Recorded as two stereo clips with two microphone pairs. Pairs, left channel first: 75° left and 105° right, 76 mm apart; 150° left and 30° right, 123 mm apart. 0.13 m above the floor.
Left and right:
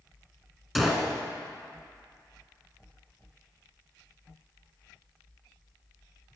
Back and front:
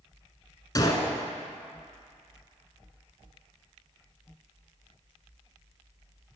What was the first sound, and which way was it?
A gunshot, 165° left.